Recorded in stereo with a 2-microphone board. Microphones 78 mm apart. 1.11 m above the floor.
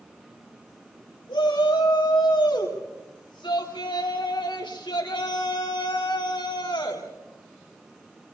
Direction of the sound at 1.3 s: 90° left.